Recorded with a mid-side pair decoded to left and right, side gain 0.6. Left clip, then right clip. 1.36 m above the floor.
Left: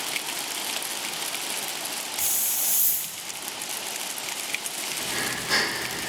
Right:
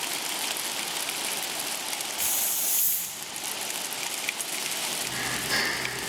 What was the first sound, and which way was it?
A hiss, 20° left.